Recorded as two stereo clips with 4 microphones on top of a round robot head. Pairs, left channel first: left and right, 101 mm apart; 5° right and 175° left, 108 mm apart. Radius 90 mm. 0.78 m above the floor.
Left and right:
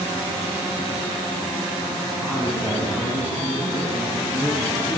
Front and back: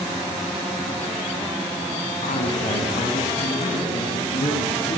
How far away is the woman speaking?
About 7 m.